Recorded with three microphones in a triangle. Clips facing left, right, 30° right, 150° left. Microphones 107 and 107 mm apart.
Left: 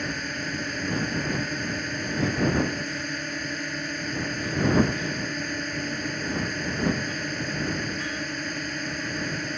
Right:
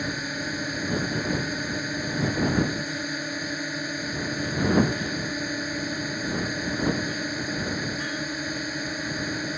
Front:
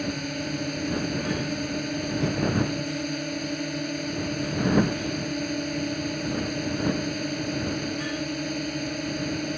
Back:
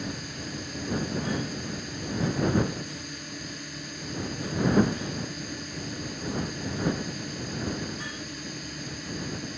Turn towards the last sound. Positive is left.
turn(degrees=-10)